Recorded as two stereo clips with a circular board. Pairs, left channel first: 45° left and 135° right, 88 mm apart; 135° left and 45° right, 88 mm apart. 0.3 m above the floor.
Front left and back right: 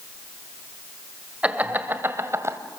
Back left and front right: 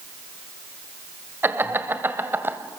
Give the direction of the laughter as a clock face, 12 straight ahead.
3 o'clock.